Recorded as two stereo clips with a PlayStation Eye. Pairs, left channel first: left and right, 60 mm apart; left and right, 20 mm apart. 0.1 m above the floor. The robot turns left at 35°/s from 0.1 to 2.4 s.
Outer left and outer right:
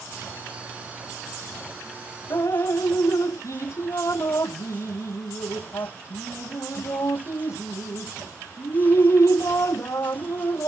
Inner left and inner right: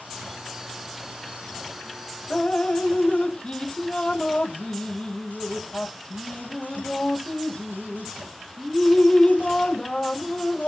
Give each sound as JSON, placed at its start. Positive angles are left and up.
{"t": 2.3, "sound": "dripping", "side_deg": 55}